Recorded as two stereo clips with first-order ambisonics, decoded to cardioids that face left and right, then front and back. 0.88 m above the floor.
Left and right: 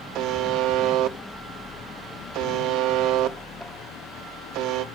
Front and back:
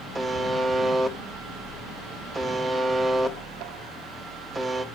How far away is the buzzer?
About 1.1 m.